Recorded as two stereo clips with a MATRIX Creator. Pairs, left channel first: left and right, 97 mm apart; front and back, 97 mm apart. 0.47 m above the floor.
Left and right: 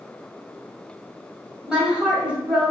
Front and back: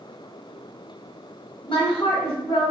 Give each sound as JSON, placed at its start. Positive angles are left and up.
{"t": 1.7, "sound": "a woman speaking", "azimuth_deg": -10, "distance_m": 2.0}